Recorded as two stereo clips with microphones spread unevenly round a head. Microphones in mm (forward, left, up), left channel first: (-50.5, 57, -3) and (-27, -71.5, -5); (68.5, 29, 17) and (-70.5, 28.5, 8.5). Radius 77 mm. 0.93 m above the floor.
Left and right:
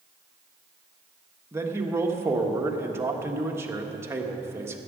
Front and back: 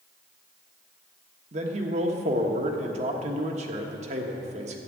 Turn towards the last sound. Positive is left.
turn(degrees=-150)